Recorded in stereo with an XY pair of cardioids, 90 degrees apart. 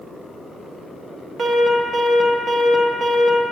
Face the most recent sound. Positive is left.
turn(degrees=-55)